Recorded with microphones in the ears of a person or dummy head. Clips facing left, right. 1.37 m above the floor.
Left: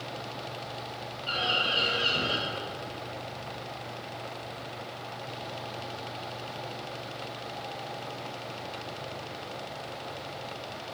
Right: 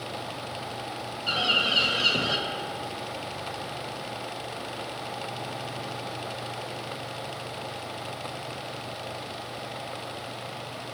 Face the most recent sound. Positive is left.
turn(degrees=-65)  # may be behind; listen again after turning